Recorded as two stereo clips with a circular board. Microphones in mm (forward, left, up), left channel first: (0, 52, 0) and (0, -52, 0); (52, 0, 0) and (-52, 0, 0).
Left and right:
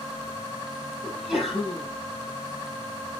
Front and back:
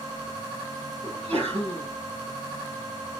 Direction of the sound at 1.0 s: 175° right.